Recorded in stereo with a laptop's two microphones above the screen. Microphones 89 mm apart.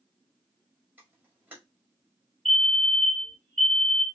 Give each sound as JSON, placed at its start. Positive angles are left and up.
{"t": 1.0, "sound": "a camera shutter", "side_deg": -20, "distance_m": 1.9}
{"t": 2.5, "sound": "a fire alarm", "side_deg": 0, "distance_m": 2.0}